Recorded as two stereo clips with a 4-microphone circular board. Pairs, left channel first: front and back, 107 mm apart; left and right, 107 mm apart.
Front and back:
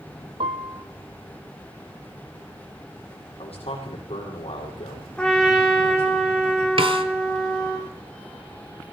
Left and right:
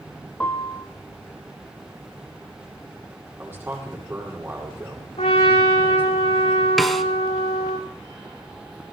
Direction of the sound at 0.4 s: 165° left.